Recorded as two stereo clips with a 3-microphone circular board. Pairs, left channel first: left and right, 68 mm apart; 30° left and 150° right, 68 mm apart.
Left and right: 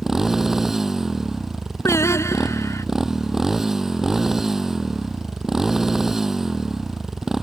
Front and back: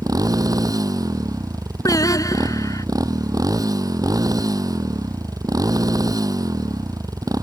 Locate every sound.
0.0 s a motorcycle: 175° right
1.9 s singing: 50° left